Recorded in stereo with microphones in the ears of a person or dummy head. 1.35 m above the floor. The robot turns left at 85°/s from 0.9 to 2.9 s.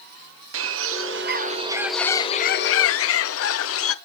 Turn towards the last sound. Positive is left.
turn(degrees=100)